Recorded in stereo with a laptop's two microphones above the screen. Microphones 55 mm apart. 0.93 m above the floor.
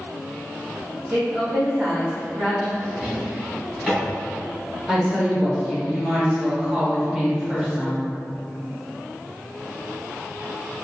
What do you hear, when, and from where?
1.1 s a woman speaking: 30° right (ahead or behind), 1.7 m
2.8 s a drawer: 10° right (ahead or behind), 1.9 m
4.9 s a woman speaking: 10° right (ahead or behind), 0.7 m